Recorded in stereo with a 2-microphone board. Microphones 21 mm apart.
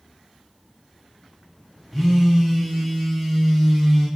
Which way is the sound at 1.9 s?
Centre (ahead or behind).